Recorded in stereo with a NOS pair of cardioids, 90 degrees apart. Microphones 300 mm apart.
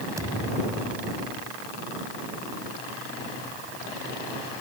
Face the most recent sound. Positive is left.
turn(degrees=-10)